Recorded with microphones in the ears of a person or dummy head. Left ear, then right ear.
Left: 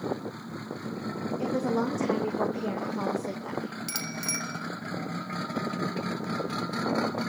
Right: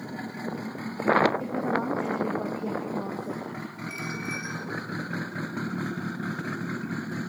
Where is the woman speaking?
85° left, 2.5 m; by 3.8 s 60° left (ahead or behind), 2 m.